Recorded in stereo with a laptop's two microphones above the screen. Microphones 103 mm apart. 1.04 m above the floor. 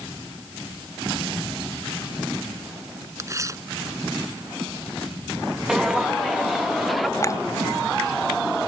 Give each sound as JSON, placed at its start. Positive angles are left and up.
{"t": 3.2, "sound": "tearing paper", "side_deg": -30}
{"t": 5.7, "sound": "footsteps", "side_deg": -5}
{"t": 7.2, "sound": "a clink", "side_deg": 35}